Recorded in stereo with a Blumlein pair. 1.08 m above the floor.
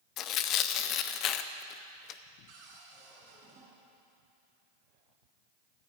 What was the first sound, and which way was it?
Tearing paper, 35° left.